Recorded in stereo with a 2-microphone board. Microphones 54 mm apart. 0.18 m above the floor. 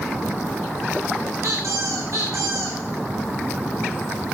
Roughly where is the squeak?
Right.